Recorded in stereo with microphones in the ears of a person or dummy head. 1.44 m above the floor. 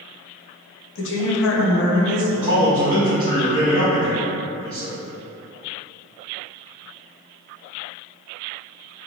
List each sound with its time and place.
0.9 s a woman speaking: 70° left (ahead or behind), 1.1 m; by 2.2 s 15° right (ahead or behind), 1.0 m
2.3 s a man speaking: 30° right (ahead or behind), 1.6 m